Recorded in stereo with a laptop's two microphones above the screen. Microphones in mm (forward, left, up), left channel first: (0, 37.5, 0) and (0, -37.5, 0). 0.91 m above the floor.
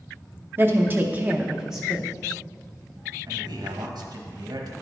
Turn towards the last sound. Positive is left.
turn(degrees=-65)  # may be behind; listen again after turning